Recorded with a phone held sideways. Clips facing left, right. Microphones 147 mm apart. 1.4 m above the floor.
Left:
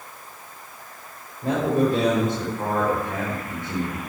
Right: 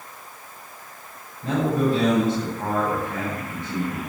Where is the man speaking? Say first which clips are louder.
Left 1 dB; 45° left (ahead or behind), 5.5 m.